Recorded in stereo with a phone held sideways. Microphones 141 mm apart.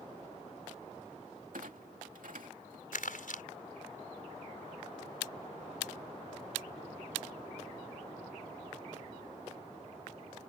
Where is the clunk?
80° right.